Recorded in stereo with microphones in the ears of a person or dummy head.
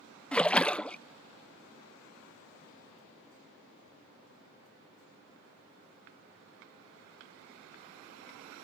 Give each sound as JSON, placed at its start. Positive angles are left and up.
{"t": 0.3, "sound": "a splash", "side_deg": 5}